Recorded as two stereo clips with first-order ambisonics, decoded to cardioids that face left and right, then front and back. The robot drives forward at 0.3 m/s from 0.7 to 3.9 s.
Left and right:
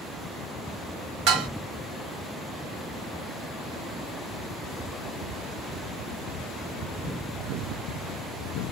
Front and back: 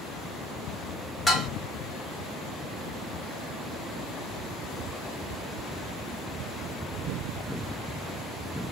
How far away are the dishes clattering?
About 0.8 m.